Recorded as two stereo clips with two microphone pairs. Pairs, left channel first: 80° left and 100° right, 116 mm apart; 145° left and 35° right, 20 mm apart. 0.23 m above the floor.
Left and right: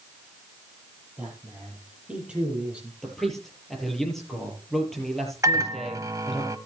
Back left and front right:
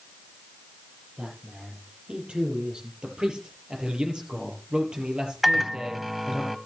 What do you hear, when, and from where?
1.2 s a man speaking: 15° right, 7 m
3.0 s a man speaking: 5° right, 6 m
5.4 s a microwave: 115° right, 1.1 m